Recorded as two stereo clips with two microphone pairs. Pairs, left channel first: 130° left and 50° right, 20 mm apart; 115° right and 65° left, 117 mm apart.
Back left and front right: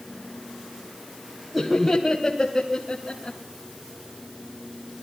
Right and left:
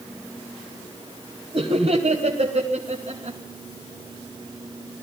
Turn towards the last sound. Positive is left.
turn(degrees=70)